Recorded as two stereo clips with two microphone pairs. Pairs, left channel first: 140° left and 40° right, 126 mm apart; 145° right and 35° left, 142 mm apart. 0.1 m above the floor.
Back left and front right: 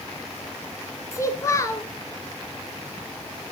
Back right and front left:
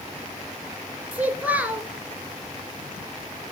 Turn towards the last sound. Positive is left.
turn(degrees=100)